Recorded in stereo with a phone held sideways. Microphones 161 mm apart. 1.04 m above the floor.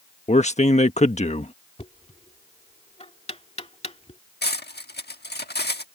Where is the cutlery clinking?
85° left.